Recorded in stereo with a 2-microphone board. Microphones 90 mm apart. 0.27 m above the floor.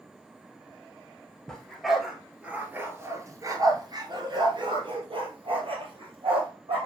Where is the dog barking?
5° left (ahead or behind), 1.8 m; by 6.9 s 80° right, 3 m.